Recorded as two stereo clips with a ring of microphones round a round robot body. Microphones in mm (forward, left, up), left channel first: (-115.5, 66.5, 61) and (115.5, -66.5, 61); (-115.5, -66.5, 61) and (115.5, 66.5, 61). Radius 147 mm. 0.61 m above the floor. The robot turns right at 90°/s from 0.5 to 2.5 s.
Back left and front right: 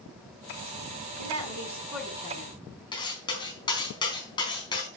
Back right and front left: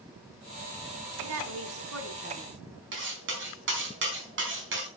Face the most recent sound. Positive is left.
turn(degrees=75)